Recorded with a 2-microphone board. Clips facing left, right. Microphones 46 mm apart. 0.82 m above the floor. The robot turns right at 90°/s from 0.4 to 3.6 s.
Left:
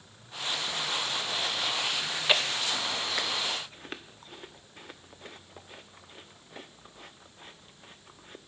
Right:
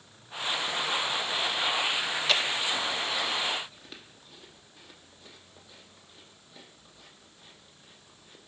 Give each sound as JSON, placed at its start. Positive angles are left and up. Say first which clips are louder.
{"t": 2.0, "sound": "chewing", "louder": "even", "side_deg": -15, "distance_m": 0.6}